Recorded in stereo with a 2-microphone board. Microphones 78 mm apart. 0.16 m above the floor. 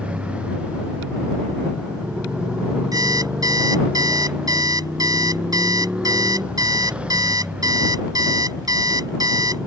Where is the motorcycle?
15° right (ahead or behind).